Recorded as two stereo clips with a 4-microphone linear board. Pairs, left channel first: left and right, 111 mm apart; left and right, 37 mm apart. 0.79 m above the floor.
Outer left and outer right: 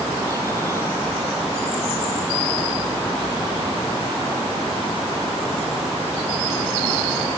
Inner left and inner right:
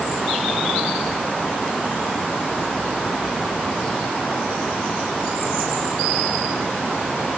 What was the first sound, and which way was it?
Only background noise.